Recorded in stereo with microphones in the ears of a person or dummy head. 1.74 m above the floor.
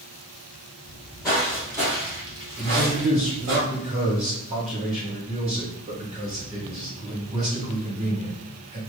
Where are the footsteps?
5° left (ahead or behind), 1.9 m; by 3.6 s 35° right (ahead or behind), 2 m.